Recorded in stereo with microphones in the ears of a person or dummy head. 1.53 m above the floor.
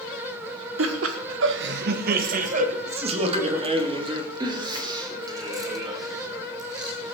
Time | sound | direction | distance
0.8 | laughter | 70° right (ahead or behind) | 1.4 m